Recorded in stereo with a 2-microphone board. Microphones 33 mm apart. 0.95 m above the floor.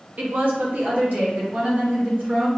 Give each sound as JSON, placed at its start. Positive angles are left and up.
{"t": 0.2, "sound": "a woman speaking", "side_deg": -55, "distance_m": 0.7}